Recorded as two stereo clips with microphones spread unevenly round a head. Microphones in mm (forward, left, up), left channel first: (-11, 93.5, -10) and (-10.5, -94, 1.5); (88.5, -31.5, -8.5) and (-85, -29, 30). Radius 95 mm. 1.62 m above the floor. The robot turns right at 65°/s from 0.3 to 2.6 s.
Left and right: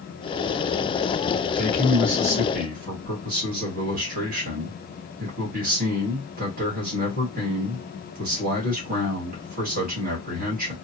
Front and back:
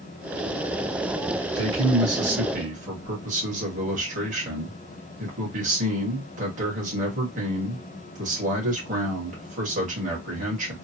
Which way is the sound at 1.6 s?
160° left.